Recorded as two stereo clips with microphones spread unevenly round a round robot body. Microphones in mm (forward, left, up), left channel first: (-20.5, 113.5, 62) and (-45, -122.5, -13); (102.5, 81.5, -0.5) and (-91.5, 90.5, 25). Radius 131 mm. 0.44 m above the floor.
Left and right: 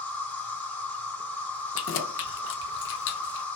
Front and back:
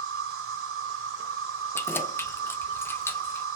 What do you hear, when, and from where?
0.0 s an insect: 175° left, 1.0 m
1.8 s keys jangling: 55° left, 0.5 m